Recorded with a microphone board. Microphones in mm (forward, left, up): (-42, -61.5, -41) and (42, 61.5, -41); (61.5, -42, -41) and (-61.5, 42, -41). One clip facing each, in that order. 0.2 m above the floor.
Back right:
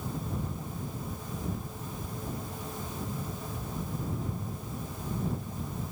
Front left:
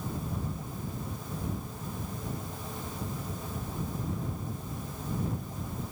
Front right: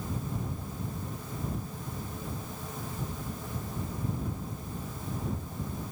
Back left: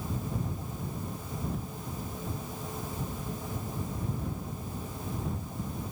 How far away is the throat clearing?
I don't hear throat clearing.